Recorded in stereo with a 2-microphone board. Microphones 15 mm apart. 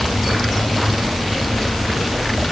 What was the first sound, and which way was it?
Only background noise.